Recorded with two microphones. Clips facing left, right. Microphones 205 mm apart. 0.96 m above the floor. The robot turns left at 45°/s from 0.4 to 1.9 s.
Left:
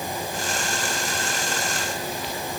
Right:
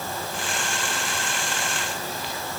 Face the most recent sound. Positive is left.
No sound to turn to.